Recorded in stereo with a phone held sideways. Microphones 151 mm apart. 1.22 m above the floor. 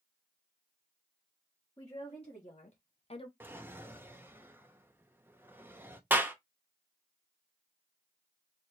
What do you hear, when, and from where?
1.8 s a woman speaking: 35° left (ahead or behind), 1.9 m; by 3.3 s 30° left (ahead or behind), 0.7 m
3.4 s a drawer: 15° right (ahead or behind), 0.5 m
6.1 s a clap: 15° right (ahead or behind), 0.8 m